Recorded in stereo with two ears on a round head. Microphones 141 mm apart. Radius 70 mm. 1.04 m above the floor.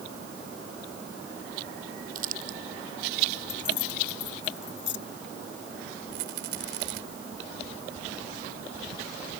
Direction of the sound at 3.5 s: 85° left.